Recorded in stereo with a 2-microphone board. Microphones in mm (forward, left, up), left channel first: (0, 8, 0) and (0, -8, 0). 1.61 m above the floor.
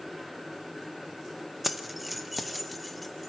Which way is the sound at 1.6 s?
10° right (ahead or behind).